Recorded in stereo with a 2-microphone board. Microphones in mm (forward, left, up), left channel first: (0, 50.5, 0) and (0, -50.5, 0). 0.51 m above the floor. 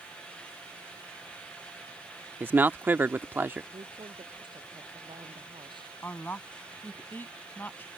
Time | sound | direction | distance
2.4 | a man speaking | 20° right (ahead or behind) | ?
3.7 | a woman speaking | 50° right (ahead or behind) | ?
6.0 | a woman speaking | 20° left (ahead or behind) | ?